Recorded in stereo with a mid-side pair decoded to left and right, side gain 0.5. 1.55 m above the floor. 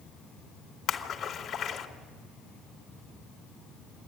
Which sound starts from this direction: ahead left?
A splash, at 0.9 s.